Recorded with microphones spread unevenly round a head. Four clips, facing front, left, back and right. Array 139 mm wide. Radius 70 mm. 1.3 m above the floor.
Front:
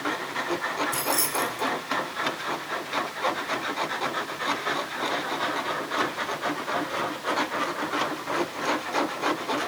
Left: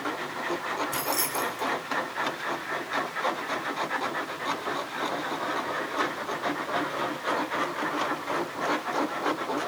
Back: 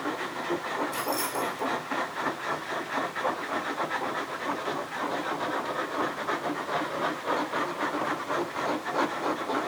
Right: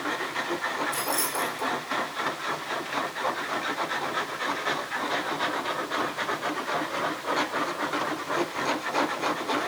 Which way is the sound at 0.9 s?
50° left.